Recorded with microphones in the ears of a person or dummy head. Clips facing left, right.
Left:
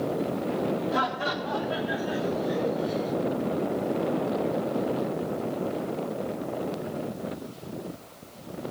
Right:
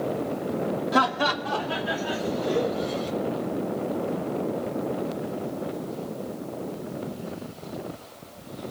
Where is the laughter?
70° right (ahead or behind), 1.0 m; by 3.1 s 85° right, 2.5 m.